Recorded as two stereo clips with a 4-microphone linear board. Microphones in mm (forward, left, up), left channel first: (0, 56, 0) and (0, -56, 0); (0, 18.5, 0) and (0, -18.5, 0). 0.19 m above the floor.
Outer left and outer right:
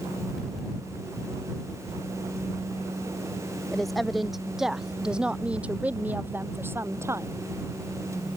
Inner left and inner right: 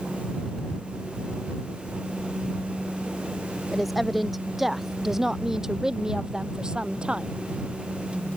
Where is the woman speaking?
Centre (ahead or behind); by 7.3 s 25° right (ahead or behind).